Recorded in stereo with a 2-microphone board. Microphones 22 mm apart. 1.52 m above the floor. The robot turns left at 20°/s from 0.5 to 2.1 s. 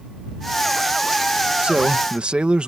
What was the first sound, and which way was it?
A man speaking, 70° right (ahead or behind).